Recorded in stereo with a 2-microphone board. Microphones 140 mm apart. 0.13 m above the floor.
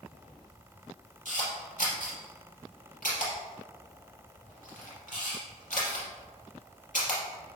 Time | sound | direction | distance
1.2 | a camera shutter | 70° left (ahead or behind) | 4 m